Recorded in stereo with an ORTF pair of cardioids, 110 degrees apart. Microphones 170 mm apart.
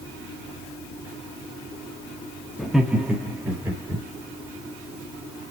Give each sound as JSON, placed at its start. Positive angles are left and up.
{"t": 2.6, "sound": "laughter", "azimuth_deg": 0, "distance_m": 1.9}